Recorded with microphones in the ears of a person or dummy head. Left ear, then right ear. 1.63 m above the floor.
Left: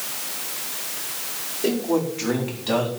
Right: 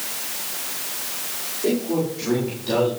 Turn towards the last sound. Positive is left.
turn(degrees=25)  # may be behind; listen again after turning